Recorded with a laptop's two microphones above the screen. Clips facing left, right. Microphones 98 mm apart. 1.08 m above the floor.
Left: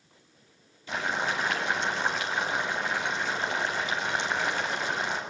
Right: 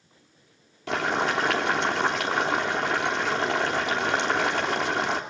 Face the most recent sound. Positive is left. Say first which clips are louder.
# right 5 dB
turn(degrees=-80)